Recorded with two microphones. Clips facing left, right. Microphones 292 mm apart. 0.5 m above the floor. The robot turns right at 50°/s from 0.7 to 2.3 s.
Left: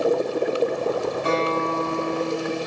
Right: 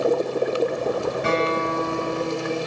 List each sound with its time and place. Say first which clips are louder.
1.2 s a guitar: right 1 dB; 75° right, 7 m; by 2.6 s 20° right, 7 m